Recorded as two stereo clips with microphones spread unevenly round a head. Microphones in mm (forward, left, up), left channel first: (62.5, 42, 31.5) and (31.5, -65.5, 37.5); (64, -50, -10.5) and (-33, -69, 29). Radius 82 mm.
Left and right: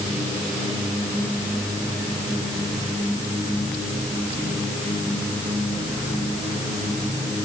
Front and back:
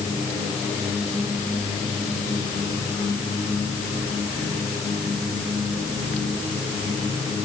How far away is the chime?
I don't hear a chime.